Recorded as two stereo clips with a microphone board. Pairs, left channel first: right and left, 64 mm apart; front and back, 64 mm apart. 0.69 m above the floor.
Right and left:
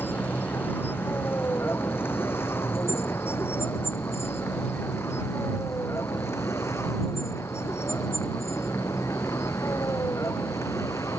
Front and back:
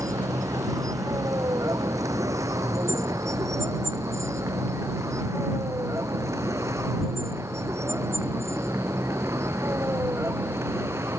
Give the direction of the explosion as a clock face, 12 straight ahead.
I don't hear an explosion.